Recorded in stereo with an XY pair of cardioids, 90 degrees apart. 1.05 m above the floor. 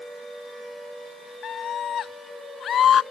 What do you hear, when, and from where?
1.4 s a scream: 65° left